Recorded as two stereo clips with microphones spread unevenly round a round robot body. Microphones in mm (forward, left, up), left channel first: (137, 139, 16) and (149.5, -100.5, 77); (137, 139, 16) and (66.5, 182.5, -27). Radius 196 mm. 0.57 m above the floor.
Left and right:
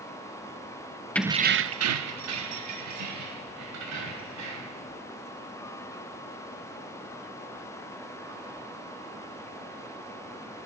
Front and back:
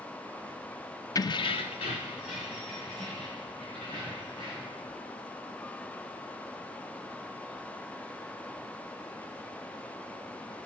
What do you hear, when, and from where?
1.1 s keys jangling: 40° left, 0.5 m; by 4.8 s 90° right, 3.5 m